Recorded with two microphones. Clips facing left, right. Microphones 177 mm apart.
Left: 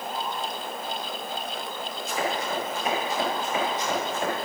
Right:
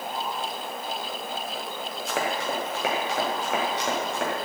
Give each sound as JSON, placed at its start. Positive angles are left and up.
{"t": 2.1, "sound": "running footsteps", "side_deg": -85, "distance_m": 4.5}